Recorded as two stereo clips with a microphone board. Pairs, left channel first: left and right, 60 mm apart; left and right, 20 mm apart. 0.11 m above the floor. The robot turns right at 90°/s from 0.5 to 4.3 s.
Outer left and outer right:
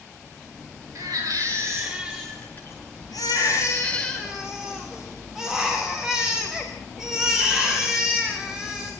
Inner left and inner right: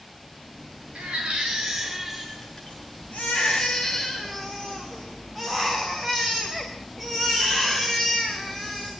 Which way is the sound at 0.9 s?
115° right.